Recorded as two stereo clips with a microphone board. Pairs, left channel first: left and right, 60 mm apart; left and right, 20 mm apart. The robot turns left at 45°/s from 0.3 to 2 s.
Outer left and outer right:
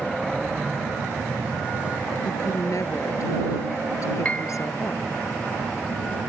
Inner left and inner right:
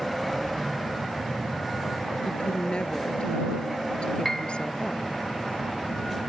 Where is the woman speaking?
65° left (ahead or behind).